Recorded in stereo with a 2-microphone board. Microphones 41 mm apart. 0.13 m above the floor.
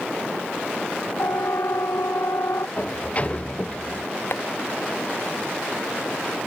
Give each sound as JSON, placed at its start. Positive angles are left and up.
{"t": 1.2, "sound": "a siren", "side_deg": 75}
{"t": 2.8, "sound": "a sliding door", "side_deg": 30}
{"t": 4.3, "sound": "tapping", "side_deg": 65}